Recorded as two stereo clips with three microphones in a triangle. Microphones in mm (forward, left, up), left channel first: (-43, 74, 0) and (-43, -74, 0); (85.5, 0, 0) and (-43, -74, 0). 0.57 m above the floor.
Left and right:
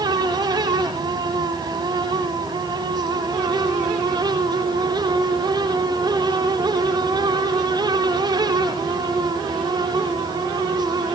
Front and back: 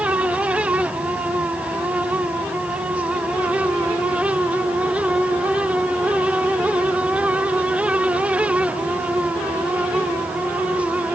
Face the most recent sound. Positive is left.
No sound to turn to.